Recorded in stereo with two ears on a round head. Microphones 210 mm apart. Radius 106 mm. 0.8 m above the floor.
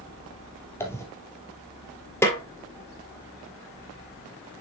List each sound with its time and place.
0.8 s a dropped coin: 10° left (ahead or behind), 1.8 m
2.2 s a snare drum: 10° left (ahead or behind), 1.6 m